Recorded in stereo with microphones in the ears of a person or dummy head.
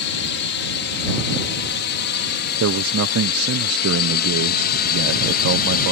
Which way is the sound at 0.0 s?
65° left (ahead or behind).